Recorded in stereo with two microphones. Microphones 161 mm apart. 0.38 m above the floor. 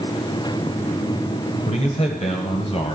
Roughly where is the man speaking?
Left.